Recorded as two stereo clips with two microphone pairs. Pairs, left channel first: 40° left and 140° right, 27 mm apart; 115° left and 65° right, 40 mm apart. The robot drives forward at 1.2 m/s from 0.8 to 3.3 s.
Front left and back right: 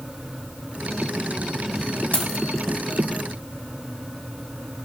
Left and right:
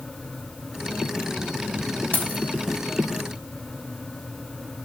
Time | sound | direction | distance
2.1 | keys jangling | 65° left | 1.2 m